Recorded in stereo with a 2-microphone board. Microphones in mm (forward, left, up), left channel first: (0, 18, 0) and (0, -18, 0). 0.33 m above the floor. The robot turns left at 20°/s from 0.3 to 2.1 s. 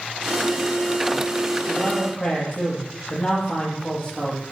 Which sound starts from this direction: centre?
A man speaking, at 1.7 s.